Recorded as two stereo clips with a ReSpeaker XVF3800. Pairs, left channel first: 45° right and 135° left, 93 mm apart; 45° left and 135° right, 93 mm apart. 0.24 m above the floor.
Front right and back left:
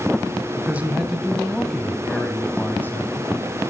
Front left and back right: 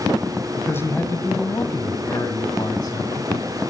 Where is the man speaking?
90° left, 1.2 m; by 3.3 s 15° left, 1.9 m.